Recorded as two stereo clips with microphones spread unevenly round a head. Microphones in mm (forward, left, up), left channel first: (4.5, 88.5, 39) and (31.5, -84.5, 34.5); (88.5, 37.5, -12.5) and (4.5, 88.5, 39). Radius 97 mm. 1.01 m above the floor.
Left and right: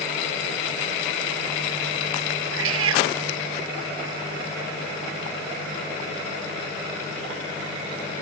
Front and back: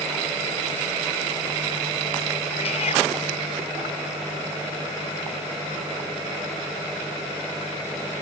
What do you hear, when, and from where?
2.5 s a cat meowing: 85° right